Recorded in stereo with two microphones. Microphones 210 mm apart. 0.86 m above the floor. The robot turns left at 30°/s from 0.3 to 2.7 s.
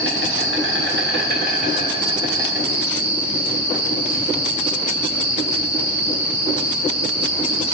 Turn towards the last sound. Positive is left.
turn(degrees=-170)